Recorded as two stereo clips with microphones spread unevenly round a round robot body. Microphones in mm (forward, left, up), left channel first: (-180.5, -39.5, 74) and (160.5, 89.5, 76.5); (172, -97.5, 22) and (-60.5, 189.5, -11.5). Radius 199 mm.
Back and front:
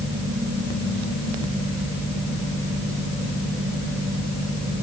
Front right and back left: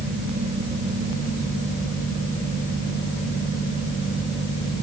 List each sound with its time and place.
Only background noise.